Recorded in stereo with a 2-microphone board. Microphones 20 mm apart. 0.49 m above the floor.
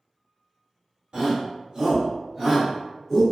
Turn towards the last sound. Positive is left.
turn(degrees=-5)  # may be behind; listen again after turning